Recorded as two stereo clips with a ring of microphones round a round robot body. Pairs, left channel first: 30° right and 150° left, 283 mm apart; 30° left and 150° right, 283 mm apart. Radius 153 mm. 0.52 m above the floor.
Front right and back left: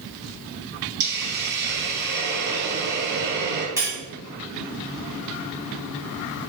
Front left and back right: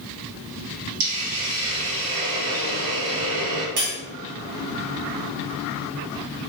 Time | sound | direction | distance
1.0 | a hiss | 155° right | 2 m
3.8 | cutlery clinking | 130° right | 3 m